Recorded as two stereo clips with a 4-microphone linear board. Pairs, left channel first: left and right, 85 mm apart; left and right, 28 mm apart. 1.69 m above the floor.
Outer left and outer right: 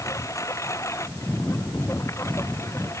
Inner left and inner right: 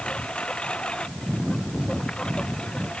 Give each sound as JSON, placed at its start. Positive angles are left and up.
{"t": 0.0, "sound": "a lawn mower", "side_deg": 35}